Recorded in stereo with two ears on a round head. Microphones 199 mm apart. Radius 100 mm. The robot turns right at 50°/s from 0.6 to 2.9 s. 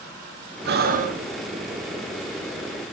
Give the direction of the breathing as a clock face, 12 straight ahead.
2 o'clock.